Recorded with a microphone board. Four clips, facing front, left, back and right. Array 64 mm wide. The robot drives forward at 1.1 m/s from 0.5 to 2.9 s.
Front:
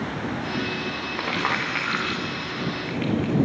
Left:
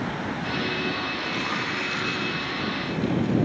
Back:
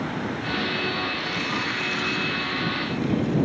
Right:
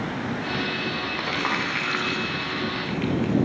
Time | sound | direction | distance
1.2 | crumpling | 25° right | 7.5 m